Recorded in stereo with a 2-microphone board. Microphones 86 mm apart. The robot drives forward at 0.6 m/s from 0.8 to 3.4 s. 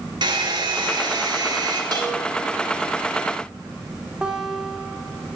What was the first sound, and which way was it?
A hair dryer, 60° right (ahead or behind).